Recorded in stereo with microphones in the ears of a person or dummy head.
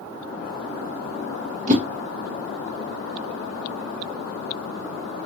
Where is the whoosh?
40° right (ahead or behind), 0.6 m.